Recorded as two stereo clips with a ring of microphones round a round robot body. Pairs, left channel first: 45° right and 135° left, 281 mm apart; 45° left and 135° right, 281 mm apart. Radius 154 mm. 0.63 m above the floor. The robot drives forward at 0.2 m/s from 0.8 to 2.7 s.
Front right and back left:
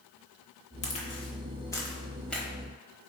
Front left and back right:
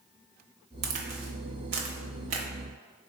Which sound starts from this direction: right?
A crack, at 0.8 s.